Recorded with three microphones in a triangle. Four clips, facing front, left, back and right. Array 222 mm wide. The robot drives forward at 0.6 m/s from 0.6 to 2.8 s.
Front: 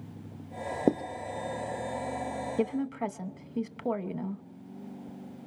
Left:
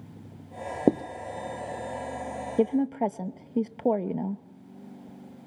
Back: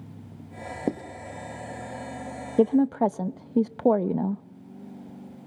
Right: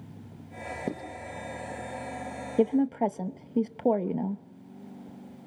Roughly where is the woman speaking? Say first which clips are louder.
Right 1 dB, back 11 dB; behind.